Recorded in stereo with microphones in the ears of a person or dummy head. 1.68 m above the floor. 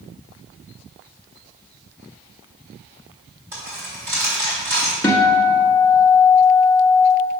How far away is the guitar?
About 1.2 m.